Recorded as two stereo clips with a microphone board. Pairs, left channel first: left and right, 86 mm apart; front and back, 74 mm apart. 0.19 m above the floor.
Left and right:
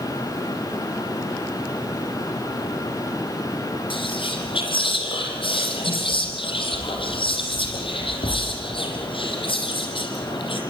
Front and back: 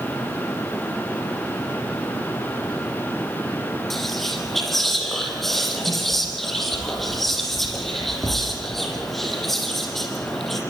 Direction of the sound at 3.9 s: 85° left.